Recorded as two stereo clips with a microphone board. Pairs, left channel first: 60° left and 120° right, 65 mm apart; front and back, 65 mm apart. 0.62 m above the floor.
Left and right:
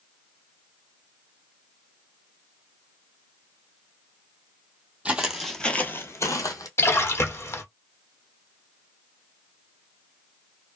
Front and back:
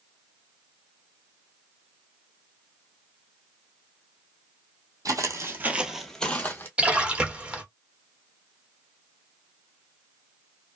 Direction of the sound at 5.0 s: 165° left.